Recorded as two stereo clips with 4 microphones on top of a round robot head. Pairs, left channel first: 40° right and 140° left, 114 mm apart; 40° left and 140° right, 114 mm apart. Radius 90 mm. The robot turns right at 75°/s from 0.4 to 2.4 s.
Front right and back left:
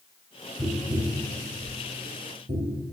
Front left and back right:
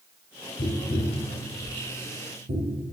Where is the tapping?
50° left, 0.8 m; by 2.8 s 175° right, 0.8 m.